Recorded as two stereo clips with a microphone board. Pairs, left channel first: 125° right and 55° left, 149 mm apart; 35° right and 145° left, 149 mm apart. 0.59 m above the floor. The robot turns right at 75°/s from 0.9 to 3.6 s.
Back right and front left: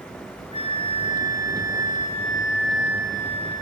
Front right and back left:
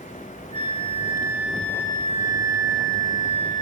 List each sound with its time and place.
0.5 s a flute: 175° right, 3.5 m; by 3.6 s 30° left, 3.5 m